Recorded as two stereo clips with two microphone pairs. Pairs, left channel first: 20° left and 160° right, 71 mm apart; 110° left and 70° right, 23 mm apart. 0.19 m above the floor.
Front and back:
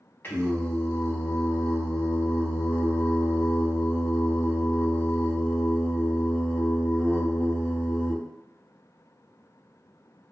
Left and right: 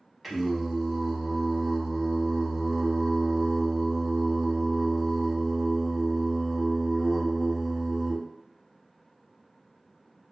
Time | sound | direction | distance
0.2 | singing | 10° left | 0.8 m